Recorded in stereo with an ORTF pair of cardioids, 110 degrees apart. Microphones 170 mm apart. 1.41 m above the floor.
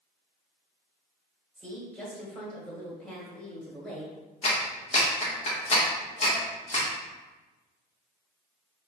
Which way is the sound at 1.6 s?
5° left.